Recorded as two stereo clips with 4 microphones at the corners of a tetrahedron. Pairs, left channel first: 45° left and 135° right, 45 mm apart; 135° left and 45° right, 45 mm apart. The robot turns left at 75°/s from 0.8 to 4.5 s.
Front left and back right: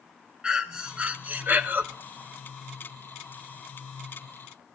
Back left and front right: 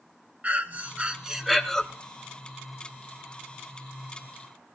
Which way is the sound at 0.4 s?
75° right.